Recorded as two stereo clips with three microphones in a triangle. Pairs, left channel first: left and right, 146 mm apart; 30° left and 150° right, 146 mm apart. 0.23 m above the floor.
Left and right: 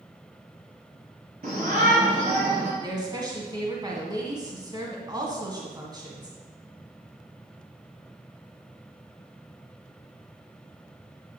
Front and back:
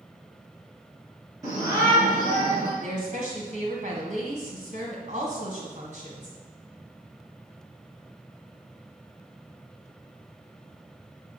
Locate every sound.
1.4 s a shout: 85° right, 3 m; by 2.7 s 100° right, 2.5 m
2.8 s a woman speaking: 145° right, 1.6 m